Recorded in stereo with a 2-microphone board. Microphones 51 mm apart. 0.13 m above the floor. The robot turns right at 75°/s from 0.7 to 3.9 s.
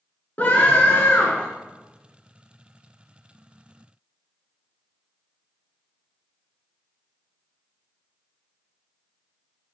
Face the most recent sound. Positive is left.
turn(degrees=-50)